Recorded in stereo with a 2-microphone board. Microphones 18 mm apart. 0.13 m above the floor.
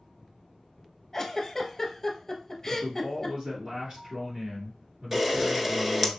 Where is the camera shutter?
15° right (ahead or behind), 0.7 m.